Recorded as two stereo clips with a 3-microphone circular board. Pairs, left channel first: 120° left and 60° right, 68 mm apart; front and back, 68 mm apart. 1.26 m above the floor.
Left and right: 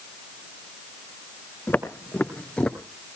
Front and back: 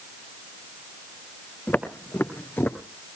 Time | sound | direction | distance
1.7 | footsteps | 65° left | 3 m